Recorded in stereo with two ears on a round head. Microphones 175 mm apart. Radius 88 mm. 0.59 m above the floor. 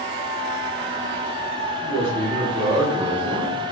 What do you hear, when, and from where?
1.8 s a man speaking: 20° left (ahead or behind), 1.2 m; by 3.6 s 30° right (ahead or behind), 1.6 m